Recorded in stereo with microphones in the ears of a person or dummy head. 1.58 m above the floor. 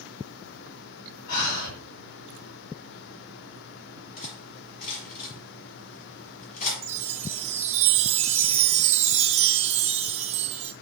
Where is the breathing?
65° left (ahead or behind), 2.5 m.